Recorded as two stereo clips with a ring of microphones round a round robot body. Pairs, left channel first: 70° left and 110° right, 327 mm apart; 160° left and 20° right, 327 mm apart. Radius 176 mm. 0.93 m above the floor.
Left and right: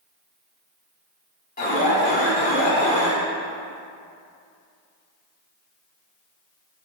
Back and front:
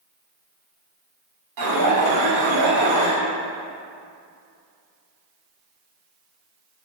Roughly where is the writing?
I don't hear writing.